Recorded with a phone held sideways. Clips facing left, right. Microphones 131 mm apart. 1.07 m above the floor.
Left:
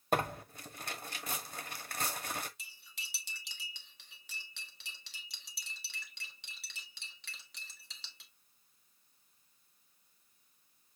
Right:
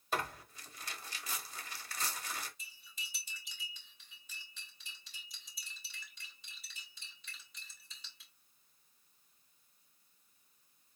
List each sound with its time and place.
0.1 s tearing paper: 50° left (ahead or behind), 1.1 m
2.6 s cutlery clinking: 75° left (ahead or behind), 1.5 m